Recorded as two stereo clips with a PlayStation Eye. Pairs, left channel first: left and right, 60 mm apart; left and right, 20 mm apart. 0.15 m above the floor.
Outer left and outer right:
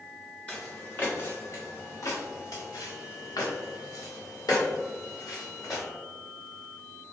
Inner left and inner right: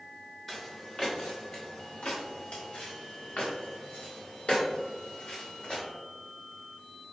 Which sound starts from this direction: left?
Footsteps, at 0.5 s.